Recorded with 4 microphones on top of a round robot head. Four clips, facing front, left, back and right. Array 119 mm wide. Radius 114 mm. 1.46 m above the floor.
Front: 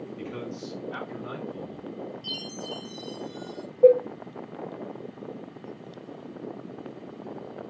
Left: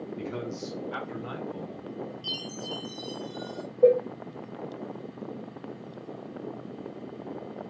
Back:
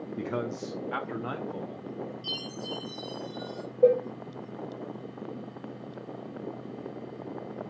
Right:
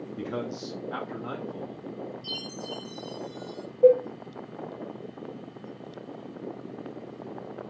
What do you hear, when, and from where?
0.2 s a man speaking: 145° right, 0.6 m; by 1.9 s 170° right, 1.5 m
2.2 s a chime: 105° left, 0.6 m
3.8 s a cowbell: 140° left, 1.2 m